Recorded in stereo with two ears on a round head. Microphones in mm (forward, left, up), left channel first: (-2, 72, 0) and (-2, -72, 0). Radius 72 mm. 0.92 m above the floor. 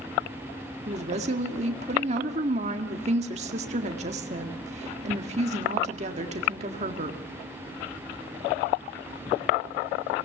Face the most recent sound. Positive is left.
turn(degrees=-40)  # may be behind; listen again after turning